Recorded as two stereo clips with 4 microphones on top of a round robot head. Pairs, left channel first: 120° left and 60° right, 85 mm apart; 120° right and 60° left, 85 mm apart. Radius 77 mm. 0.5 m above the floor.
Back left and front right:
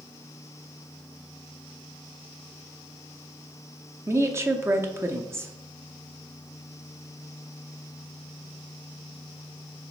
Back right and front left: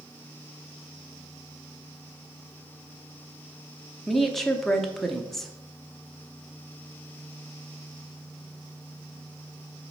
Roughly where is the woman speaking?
Ahead right.